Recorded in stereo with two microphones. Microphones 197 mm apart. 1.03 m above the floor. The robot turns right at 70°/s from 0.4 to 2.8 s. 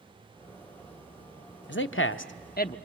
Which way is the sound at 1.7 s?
65° left.